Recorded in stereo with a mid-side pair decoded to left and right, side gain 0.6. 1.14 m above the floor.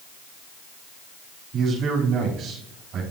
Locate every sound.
1.5 s a man speaking: 50° right, 3.5 m